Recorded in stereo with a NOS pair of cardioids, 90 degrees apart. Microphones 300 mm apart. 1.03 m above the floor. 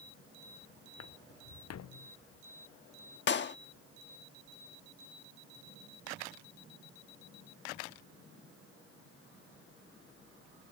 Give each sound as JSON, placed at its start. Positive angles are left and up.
{"t": 1.0, "sound": "footsteps", "azimuth_deg": 60}
{"t": 3.3, "sound": "a clap", "azimuth_deg": 40}